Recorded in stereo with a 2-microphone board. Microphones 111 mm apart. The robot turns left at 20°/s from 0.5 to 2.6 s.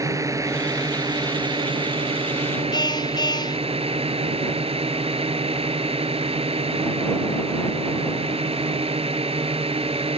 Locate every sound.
0.0 s a drone: 35° right; by 10.2 s 75° right
2.7 s a car horn: 40° left (ahead or behind)